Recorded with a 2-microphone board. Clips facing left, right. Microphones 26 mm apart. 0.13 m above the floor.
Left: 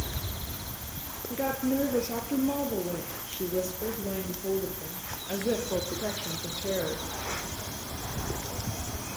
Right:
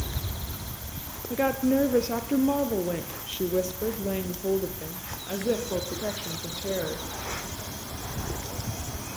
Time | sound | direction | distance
1.3 | a woman speaking | 65° right (ahead or behind) | 3 m